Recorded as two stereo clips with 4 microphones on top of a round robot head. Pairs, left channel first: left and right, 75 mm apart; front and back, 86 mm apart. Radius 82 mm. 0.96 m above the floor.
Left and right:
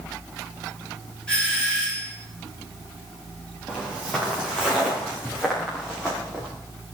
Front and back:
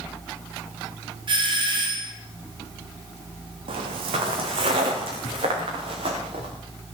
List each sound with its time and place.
1.3 s a doorbell: 170° left, 3.5 m
3.7 s footsteps: 170° left, 2.5 m